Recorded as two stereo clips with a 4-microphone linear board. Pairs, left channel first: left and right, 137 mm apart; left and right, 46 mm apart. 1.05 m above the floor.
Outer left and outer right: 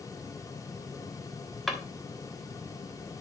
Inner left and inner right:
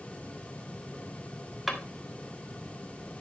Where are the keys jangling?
I don't hear keys jangling.